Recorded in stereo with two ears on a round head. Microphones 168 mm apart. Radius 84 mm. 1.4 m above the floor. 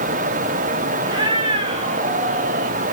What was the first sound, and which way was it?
A cat meowing, 25° right (ahead or behind).